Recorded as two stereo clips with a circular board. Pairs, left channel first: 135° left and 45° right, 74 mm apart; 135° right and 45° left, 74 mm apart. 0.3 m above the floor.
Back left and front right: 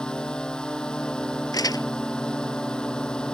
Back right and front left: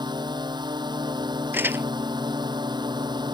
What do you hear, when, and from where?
0.0 s a drone: 55° left
1.5 s crumpling: 105° left